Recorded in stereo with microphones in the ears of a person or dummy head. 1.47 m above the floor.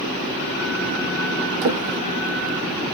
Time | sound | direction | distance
1.6 | a drawer | 50° right (ahead or behind) | 0.7 m